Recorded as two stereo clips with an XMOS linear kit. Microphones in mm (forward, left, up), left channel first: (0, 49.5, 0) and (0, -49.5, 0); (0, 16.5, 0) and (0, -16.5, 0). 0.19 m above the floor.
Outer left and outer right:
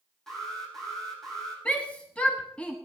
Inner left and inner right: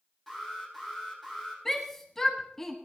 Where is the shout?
10° left (ahead or behind), 1.1 m.